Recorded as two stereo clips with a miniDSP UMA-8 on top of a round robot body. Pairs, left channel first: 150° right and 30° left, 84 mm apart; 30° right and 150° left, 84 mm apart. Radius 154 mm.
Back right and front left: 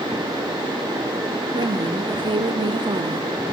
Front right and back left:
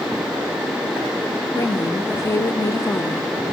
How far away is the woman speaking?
About 1.5 m.